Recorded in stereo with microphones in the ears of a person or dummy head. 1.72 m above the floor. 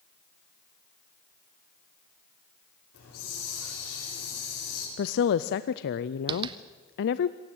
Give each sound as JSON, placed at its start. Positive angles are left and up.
{"t": 2.9, "sound": "a hiss", "side_deg": 75, "distance_m": 6.0}
{"t": 5.0, "sound": "a woman speaking", "side_deg": 60, "distance_m": 0.6}
{"t": 6.3, "sound": "tapping", "side_deg": -30, "distance_m": 1.1}